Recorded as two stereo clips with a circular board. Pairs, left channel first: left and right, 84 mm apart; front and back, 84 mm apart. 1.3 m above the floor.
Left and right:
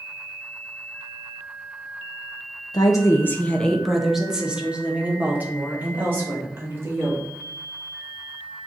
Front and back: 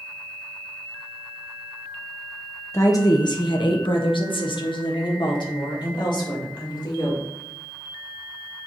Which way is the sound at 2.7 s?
55° left.